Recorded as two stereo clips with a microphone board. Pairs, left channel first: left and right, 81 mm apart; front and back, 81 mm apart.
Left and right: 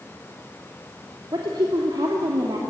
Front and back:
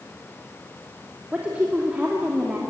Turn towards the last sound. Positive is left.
turn(degrees=-110)